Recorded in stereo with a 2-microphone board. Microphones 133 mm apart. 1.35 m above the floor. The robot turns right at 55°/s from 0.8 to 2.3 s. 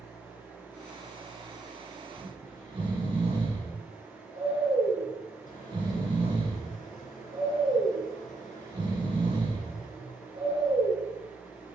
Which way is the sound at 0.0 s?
30° left.